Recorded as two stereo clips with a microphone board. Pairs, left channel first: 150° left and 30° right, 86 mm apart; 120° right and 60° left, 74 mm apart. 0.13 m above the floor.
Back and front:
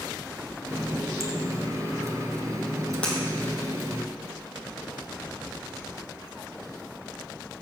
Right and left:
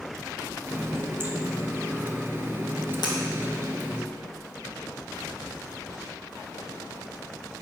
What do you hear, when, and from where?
0.7 s a running tap: 10° left, 1.4 m
3.0 s breaking glass: 135° right, 2.5 m